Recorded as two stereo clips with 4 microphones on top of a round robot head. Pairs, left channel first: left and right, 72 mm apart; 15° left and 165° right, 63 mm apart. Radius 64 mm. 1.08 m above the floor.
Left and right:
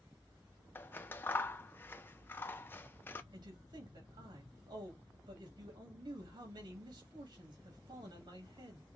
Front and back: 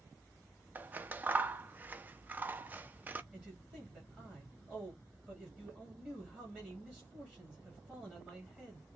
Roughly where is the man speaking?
Right.